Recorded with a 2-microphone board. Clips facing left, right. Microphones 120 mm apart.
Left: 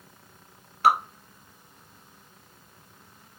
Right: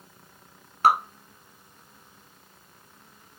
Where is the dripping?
45° right (ahead or behind), 1.5 m.